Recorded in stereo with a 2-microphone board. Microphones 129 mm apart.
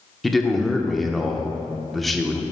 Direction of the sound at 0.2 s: Centre (ahead or behind).